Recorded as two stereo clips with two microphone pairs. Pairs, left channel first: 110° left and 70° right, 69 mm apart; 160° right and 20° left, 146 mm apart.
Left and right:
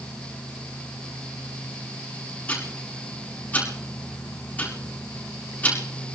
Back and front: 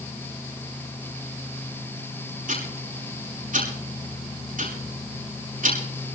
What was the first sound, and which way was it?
Ticking, 45° left.